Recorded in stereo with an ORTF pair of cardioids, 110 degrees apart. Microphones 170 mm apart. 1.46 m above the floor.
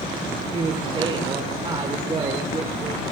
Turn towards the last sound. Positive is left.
turn(degrees=-30)